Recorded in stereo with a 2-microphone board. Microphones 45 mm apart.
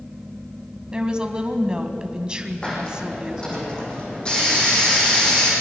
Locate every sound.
0.9 s a woman speaking: 20° right (ahead or behind), 1.9 m
2.6 s a hiss: 25° left (ahead or behind), 8 m